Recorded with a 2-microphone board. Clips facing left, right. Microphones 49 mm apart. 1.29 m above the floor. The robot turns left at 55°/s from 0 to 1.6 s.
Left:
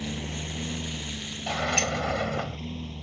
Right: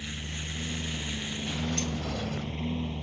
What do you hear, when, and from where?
0.0 s a lawn mower: 55° left (ahead or behind); by 3.0 s 20° right (ahead or behind)
1.5 s a sliding door: 75° left (ahead or behind); by 2.6 s 85° left